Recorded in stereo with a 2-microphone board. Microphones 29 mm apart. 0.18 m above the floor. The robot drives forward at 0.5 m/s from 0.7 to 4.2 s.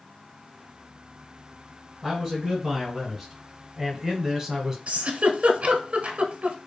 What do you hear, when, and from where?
2.0 s a man speaking: 10° right (ahead or behind), 1.6 m; by 4.8 s 15° right (ahead or behind), 1.0 m
4.9 s a giggle: 55° right (ahead or behind), 0.6 m